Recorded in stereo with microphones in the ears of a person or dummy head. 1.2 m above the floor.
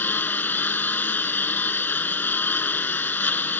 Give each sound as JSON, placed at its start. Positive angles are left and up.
{"t": 0.0, "sound": "a lawn mower", "side_deg": 10}